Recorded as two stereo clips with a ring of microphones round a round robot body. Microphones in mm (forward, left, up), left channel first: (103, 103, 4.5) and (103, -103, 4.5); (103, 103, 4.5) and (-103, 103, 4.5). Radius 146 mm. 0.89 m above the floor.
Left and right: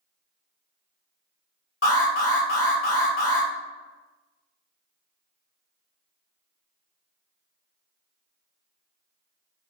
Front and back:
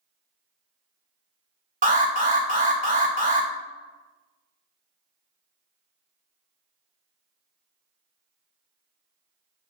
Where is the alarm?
130° left, 3 m.